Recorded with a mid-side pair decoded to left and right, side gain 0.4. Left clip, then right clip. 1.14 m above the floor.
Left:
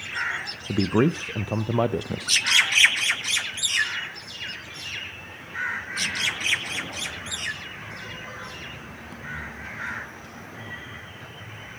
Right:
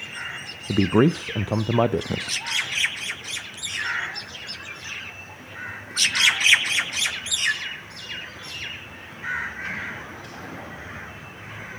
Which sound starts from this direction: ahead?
A man speaking, at 0.7 s.